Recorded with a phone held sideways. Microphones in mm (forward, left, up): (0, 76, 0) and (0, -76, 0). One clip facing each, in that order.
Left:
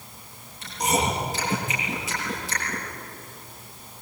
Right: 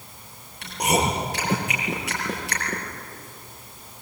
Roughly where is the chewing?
Right.